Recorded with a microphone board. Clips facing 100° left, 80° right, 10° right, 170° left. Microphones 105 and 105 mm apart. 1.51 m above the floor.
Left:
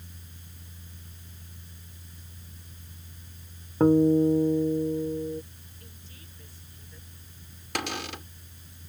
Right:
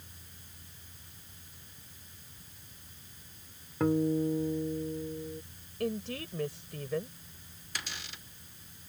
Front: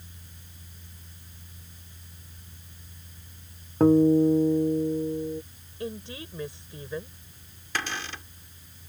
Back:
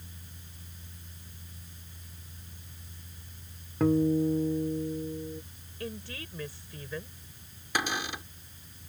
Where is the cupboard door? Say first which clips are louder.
Left 12 dB, back 2 dB; 95° left.